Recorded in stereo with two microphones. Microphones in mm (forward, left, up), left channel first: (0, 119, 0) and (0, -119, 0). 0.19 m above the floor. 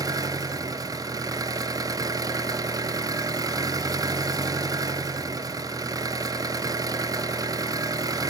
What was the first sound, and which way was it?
An engine running, 15° right (ahead or behind).